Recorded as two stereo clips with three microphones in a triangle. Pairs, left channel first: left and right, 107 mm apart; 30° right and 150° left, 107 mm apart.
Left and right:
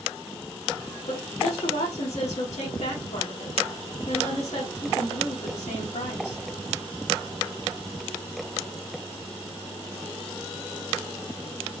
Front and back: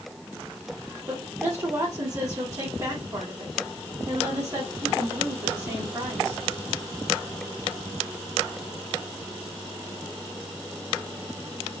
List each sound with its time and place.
1.1 s a woman speaking: 90° left, 2.5 m